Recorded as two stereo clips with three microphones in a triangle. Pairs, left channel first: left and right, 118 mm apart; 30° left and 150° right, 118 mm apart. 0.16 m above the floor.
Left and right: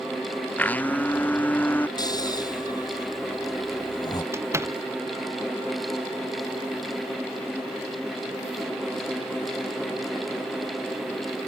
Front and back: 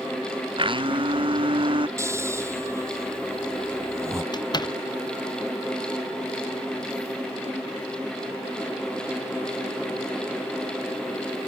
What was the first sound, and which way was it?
A blender, 165° left.